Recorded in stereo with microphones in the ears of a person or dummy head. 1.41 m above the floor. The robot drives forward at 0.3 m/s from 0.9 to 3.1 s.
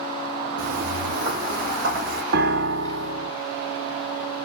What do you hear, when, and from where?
0.6 s footsteps: 30° right (ahead or behind), 2.5 m; by 2.2 s 55° right (ahead or behind), 3 m
2.3 s a piano: 70° right (ahead or behind), 0.8 m; by 3.3 s 85° right, 0.8 m